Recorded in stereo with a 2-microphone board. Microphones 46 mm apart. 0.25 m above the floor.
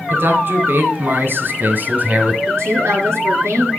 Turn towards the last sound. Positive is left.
turn(degrees=-70)  # may be behind; listen again after turning